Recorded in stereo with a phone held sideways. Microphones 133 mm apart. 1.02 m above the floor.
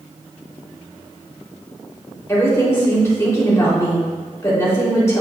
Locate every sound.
2.3 s a woman speaking: 20° left (ahead or behind), 3 m